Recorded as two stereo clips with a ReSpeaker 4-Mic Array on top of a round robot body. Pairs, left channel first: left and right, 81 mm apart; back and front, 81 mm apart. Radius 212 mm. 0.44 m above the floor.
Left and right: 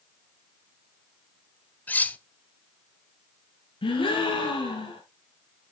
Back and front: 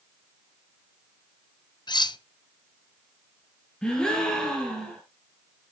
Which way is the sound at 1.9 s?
160° left.